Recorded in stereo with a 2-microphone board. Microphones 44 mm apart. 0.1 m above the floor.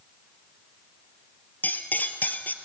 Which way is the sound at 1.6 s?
45° left (ahead or behind).